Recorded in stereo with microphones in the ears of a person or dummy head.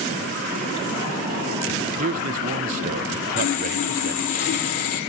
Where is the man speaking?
35° right (ahead or behind), 0.6 m.